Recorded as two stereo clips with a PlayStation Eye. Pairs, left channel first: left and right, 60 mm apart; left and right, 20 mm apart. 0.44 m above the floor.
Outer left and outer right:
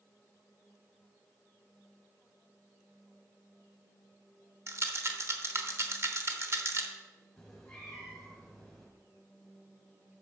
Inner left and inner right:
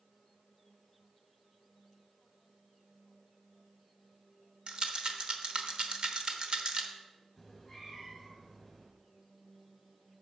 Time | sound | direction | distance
4.7 | a rattle | 45° right (ahead or behind) | 1.0 m
7.4 | a cat meowing | 5° left (ahead or behind) | 3 m